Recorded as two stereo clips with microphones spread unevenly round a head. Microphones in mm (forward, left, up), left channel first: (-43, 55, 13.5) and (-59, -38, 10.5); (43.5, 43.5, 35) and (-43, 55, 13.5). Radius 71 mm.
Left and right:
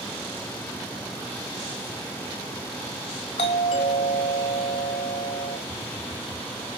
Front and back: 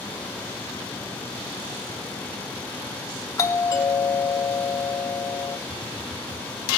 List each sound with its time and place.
3.4 s a doorbell: 50° left, 3.5 m
5.7 s a phone buzzing: 130° right, 1.3 m